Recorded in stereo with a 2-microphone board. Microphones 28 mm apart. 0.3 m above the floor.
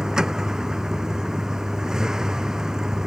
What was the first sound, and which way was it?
A vehicle, 20° right (ahead or behind).